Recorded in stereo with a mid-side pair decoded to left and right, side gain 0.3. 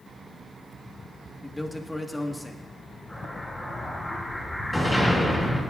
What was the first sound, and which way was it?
A man speaking, 20° left.